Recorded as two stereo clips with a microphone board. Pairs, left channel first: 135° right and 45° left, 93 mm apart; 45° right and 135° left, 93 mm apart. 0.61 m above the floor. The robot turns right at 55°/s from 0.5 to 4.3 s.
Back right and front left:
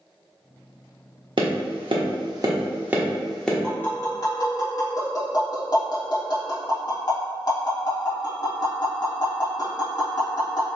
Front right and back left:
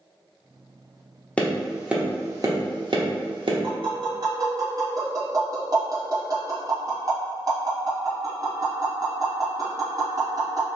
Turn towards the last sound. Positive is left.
turn(degrees=180)